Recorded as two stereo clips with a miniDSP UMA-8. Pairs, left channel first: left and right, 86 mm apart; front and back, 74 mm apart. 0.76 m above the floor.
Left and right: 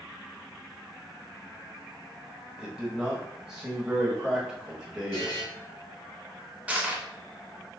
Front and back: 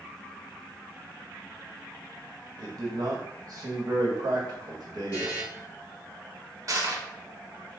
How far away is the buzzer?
About 2.0 m.